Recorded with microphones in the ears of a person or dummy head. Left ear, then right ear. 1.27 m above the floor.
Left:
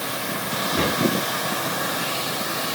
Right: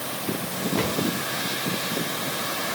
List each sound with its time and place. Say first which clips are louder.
0.8 s a cupboard door: left 3 dB; 65° right (ahead or behind), 3 m